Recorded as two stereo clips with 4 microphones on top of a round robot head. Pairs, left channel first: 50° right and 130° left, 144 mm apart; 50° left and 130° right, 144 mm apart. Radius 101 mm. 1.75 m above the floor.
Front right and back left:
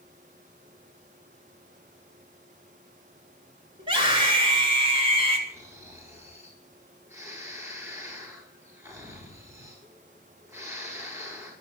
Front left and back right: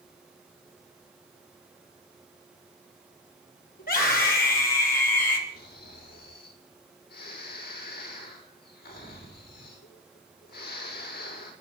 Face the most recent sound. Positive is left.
turn(degrees=60)